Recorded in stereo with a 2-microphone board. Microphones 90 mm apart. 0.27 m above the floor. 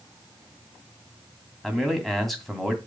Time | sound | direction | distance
1.6 | a man speaking | centre (ahead or behind) | 2.5 m